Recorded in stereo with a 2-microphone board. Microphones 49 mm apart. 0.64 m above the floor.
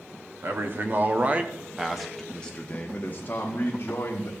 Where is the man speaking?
50° right (ahead or behind), 1.1 m; by 4.3 s 60° left (ahead or behind), 1.4 m.